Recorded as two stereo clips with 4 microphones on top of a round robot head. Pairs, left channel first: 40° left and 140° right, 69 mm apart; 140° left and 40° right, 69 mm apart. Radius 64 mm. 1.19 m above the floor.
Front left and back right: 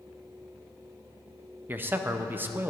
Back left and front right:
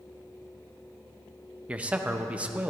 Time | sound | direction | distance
1.7 | a man speaking | 100° right | 0.7 m